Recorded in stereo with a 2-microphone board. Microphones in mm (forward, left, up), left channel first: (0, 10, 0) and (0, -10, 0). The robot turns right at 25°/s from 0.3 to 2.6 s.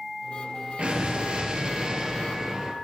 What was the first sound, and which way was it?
An explosion, 70° right.